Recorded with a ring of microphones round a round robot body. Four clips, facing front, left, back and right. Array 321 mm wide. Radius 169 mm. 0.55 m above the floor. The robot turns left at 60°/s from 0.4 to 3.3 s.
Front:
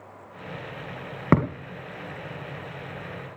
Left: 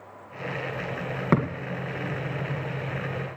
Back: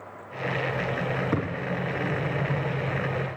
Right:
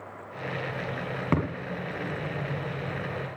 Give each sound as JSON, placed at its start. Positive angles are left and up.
{"t": 1.3, "sound": "a thud", "azimuth_deg": 10, "distance_m": 2.5}